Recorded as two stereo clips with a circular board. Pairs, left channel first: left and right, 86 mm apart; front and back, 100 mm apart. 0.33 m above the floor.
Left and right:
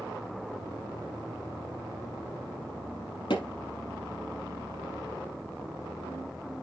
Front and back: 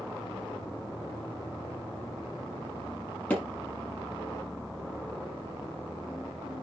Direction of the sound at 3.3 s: 75° left.